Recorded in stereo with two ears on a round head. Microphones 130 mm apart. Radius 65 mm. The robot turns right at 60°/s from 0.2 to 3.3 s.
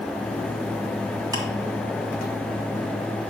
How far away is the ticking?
About 1.3 m.